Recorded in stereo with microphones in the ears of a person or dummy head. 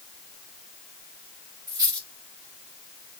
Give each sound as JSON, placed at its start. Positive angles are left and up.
{"t": 1.7, "sound": "a dropped coin", "side_deg": -20, "distance_m": 2.0}